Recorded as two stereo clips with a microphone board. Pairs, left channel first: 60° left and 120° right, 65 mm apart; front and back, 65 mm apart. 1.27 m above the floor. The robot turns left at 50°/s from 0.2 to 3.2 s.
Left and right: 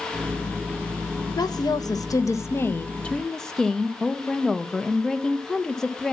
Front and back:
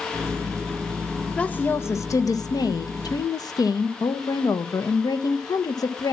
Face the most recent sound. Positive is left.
turn(degrees=-20)